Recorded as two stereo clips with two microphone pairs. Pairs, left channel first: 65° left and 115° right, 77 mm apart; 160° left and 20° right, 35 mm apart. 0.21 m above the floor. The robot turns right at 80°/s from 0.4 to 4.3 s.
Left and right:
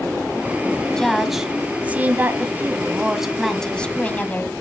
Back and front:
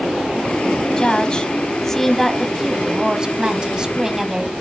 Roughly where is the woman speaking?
Behind left.